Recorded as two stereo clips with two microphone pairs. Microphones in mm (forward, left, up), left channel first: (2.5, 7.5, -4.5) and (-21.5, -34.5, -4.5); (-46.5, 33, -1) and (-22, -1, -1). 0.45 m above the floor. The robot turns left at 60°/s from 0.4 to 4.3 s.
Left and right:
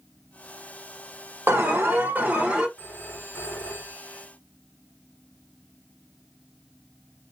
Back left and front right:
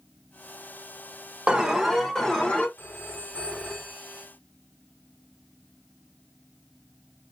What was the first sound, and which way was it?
An alarm, 120° right.